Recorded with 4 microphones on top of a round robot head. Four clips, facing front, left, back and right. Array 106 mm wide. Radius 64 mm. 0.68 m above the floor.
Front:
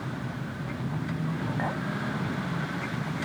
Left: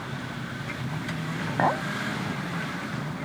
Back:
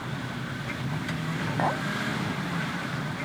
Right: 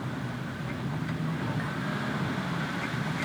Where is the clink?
105° left.